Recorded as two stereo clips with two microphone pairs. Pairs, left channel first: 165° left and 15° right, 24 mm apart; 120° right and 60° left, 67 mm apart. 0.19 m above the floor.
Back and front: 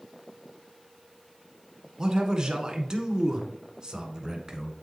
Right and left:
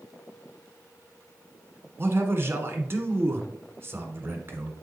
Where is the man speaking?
30° left, 1.5 m.